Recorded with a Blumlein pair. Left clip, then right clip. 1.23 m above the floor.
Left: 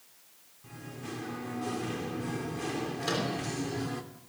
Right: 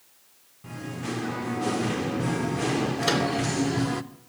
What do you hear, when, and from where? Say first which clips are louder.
0.6 s singing: right 8 dB; 25° right, 0.6 m
3.0 s a microwave: right 7 dB; 70° right, 3 m